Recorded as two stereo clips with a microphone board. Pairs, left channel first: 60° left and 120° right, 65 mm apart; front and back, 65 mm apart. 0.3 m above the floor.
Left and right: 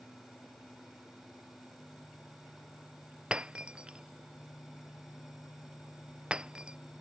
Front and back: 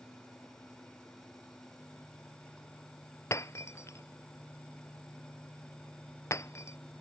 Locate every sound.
3.3 s breaking glass: 45° right